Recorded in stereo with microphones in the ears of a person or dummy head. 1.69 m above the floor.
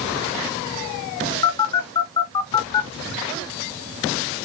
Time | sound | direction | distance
1.4 | a phone buzzing | 30° left (ahead or behind) | 1.7 m